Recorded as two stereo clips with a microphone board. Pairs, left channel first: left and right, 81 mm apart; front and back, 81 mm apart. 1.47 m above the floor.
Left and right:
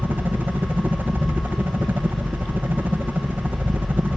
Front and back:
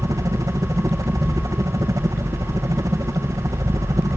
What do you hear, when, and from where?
0.0 s a helicopter: 155° right